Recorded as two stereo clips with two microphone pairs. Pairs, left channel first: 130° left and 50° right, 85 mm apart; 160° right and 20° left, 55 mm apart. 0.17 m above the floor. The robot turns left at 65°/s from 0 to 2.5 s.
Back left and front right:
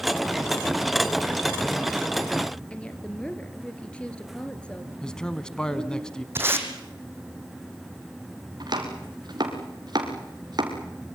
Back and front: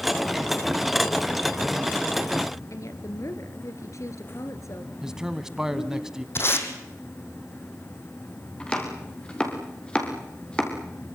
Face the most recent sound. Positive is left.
turn(degrees=-85)